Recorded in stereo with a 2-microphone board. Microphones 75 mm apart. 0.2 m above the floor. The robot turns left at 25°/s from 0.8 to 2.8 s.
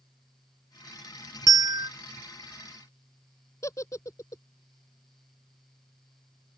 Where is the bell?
60° right (ahead or behind); by 1.9 s 65° right (ahead or behind).